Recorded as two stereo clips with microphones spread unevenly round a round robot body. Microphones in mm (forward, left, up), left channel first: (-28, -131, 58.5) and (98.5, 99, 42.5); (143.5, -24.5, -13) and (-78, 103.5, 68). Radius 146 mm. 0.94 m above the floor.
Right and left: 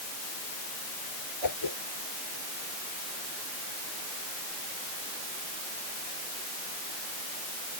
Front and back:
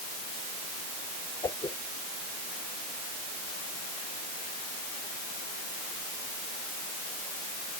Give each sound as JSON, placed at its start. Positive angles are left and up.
{"t": 1.4, "sound": "a whoosh", "azimuth_deg": -110}